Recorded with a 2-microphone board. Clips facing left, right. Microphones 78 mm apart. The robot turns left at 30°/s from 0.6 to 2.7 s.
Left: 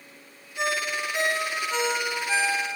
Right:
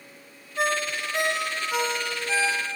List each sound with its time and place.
0.6 s a ringtone: 40° right (ahead or behind), 0.7 m; by 2.8 s 20° left (ahead or behind), 0.7 m